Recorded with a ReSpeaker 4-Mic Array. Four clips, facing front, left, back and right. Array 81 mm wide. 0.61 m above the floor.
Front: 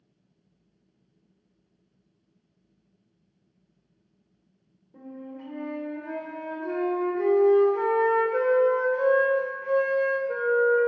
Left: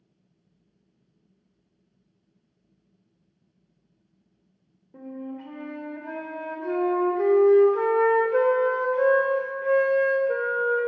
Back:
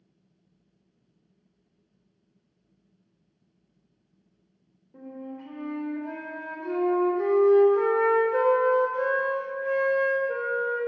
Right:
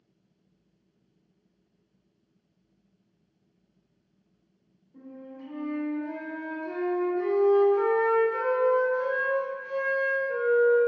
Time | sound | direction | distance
4.9 | a flute | 95° left | 1.2 m